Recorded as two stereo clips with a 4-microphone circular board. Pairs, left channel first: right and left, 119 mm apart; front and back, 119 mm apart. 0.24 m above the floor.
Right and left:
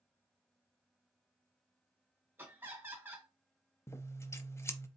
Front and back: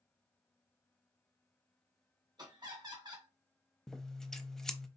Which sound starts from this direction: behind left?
Laughter, at 2.4 s.